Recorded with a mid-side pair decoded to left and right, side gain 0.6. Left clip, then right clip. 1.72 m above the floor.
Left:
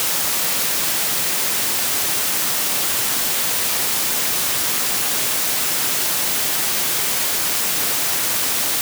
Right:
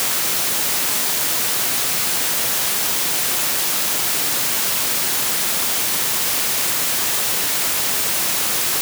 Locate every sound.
Only background noise.